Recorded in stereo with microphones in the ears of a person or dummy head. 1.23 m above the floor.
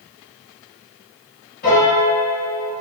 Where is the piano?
55° left (ahead or behind), 2.5 m.